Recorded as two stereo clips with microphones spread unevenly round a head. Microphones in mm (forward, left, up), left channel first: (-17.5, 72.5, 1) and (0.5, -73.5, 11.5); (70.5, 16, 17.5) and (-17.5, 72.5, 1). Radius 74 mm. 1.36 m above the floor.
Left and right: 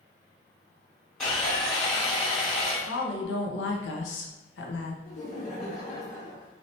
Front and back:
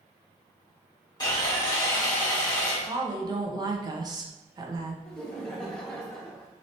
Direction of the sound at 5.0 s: 55° left.